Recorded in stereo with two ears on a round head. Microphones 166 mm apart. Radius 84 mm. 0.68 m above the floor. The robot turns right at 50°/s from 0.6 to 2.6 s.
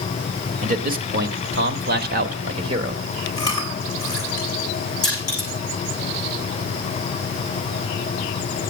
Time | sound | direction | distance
0.6 | a man speaking | 135° right | 1.4 m
3.4 | chewing | 20° left (ahead or behind) | 5 m
5.0 | crushing | 20° left (ahead or behind) | 9 m